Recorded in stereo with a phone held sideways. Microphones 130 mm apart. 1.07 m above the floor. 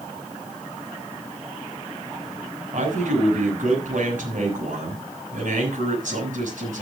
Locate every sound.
2.7 s a man speaking: 85° right, 6.5 m